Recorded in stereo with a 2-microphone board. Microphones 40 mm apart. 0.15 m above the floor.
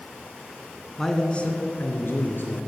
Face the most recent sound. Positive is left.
turn(degrees=65)  # may be behind; listen again after turning